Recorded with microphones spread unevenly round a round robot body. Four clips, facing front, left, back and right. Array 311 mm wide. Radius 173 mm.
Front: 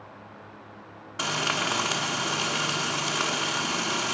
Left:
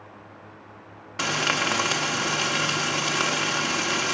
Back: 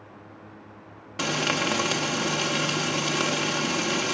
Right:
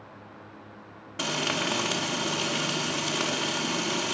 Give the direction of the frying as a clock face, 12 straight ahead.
5 o'clock.